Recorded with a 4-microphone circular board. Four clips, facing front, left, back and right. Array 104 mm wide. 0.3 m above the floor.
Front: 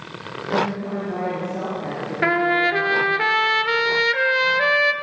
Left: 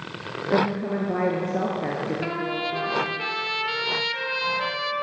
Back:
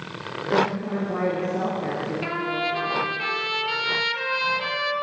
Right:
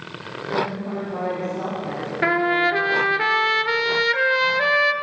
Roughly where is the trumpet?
Ahead right.